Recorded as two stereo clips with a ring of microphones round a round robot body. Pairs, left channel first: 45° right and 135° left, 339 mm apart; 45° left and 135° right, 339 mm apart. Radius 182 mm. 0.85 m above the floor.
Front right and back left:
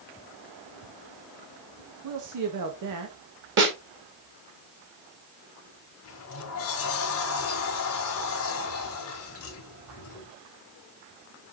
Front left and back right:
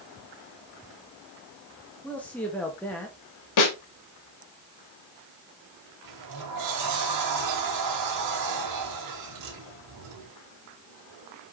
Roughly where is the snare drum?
Left.